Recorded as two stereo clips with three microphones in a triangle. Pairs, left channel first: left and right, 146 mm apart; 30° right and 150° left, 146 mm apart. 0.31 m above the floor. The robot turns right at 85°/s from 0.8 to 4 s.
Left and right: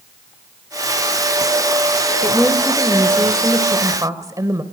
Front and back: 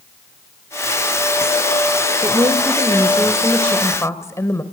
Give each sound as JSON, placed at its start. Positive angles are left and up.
{"t": 2.2, "sound": "a woman speaking", "azimuth_deg": 140, "distance_m": 1.4}